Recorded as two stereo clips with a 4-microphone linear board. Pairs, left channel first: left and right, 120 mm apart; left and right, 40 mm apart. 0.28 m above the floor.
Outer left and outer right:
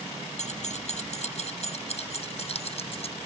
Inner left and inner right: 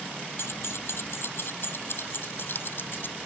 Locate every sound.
0.4 s keys jangling: 70° left (ahead or behind); by 3.2 s 55° left (ahead or behind)